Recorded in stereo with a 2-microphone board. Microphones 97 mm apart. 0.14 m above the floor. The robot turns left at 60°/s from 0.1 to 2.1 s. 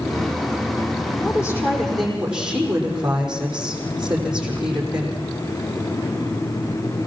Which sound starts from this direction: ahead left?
A woman speaking, at 1.2 s.